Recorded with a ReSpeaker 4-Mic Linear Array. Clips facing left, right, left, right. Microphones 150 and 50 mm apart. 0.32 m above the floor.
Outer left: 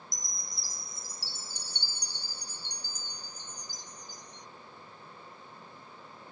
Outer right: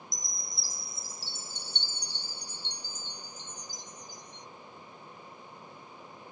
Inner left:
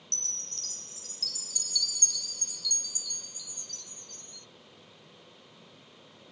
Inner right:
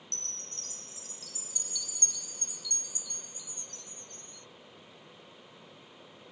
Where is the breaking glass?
I don't hear breaking glass.